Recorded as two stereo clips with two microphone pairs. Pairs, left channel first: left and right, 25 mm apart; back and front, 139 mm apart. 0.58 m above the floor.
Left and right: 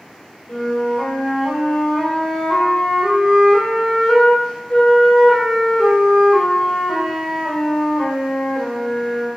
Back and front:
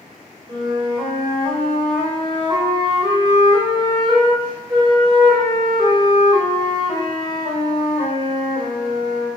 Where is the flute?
50° left, 3 m.